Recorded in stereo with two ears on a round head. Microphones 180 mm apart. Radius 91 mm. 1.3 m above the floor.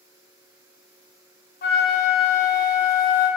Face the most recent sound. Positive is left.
turn(degrees=45)  # may be behind; listen again after turning